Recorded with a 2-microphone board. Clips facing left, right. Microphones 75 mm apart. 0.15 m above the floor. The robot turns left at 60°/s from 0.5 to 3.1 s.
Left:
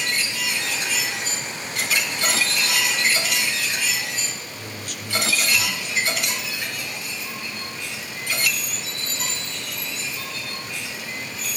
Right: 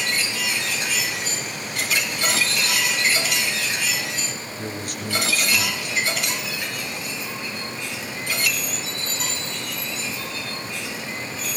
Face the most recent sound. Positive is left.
turn(degrees=-55)  # may be behind; listen again after turning